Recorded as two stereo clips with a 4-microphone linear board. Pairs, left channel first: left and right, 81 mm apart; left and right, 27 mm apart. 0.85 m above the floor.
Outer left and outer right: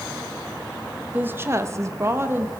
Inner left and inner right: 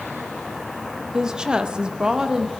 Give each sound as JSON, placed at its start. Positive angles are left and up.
{"t": 1.1, "sound": "a woman speaking", "side_deg": -25, "distance_m": 0.9}